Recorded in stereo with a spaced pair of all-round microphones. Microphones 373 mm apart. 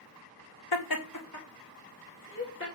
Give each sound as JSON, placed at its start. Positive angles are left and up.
{"t": 0.7, "sound": "laughter", "side_deg": 75, "distance_m": 0.8}